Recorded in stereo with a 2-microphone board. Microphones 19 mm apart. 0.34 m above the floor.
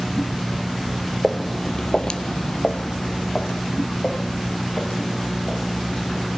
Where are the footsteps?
10° right (ahead or behind), 0.9 m; by 6.3 s 55° left (ahead or behind), 4 m.